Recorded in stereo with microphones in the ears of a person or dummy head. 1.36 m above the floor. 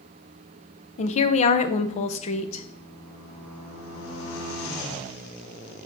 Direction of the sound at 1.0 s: 45° left (ahead or behind).